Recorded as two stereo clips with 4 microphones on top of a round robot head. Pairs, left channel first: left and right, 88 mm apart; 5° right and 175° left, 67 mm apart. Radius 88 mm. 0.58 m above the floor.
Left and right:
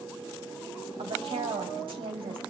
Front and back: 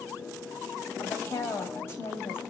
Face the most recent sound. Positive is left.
turn(degrees=-65)